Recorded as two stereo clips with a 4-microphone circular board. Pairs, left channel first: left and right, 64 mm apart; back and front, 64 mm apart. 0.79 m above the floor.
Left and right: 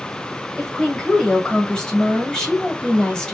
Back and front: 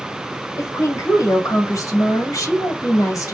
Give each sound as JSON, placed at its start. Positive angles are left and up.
{"t": 0.6, "sound": "a woman speaking", "azimuth_deg": 165, "distance_m": 1.8}